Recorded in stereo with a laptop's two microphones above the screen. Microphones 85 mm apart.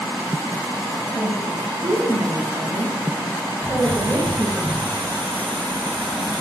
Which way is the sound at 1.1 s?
15° right (ahead or behind).